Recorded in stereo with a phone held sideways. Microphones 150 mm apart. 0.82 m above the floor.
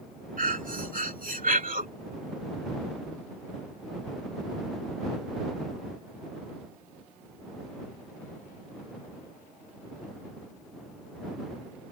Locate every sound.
0.4 s breathing: 65° right (ahead or behind)